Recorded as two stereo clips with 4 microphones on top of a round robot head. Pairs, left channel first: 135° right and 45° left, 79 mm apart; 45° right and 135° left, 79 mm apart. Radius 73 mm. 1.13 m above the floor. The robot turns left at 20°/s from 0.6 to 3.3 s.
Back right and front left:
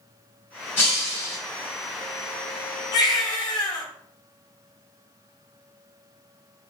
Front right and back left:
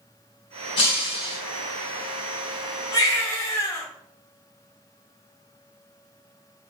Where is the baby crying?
95° right, 0.9 m; by 3.9 s 100° right, 0.9 m.